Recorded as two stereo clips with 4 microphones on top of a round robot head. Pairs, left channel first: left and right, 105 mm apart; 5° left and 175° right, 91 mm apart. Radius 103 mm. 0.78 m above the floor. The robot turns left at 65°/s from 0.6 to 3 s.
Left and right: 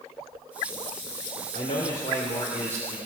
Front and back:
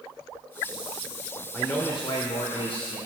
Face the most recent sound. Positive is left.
turn(degrees=-5)